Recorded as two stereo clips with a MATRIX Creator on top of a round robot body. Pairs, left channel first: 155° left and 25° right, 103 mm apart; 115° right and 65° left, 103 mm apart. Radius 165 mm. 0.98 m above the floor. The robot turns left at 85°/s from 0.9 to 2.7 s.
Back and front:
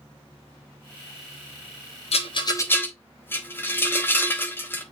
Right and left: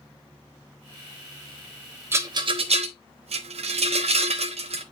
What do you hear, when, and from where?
2.1 s a rattle: 135° left, 1.1 m; by 4.8 s 85° left, 1.1 m